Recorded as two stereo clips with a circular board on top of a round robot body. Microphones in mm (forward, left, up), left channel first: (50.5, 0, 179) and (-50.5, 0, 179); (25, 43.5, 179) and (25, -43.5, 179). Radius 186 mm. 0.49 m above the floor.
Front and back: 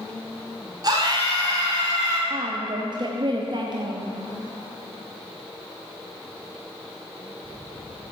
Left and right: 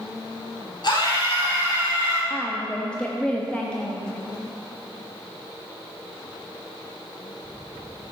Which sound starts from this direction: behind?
A woman speaking, at 2.3 s.